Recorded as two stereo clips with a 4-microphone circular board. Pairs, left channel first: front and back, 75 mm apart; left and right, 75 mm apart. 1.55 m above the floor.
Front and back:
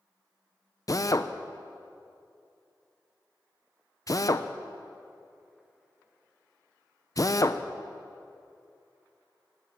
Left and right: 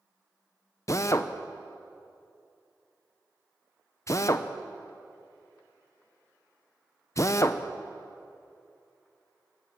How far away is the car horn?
I don't hear a car horn.